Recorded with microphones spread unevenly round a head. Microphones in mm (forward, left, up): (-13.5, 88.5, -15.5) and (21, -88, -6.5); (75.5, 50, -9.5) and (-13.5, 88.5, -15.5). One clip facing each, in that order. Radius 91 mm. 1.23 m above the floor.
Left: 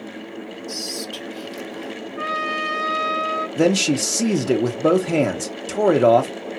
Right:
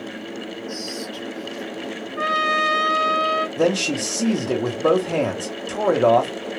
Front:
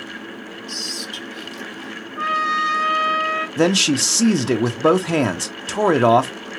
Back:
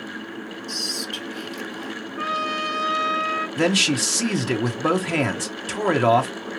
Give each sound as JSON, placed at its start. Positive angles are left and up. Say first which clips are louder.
{"t": 0.7, "sound": "whispering", "louder": "right 1 dB, back 1 dB", "azimuth_deg": 120, "distance_m": 0.9}
{"t": 2.2, "sound": "a trumpet", "louder": "right 5 dB, front 6 dB", "azimuth_deg": -75, "distance_m": 3.0}
{"t": 3.6, "sound": "a man speaking", "louder": "left 4 dB, front 4 dB", "azimuth_deg": 40, "distance_m": 0.8}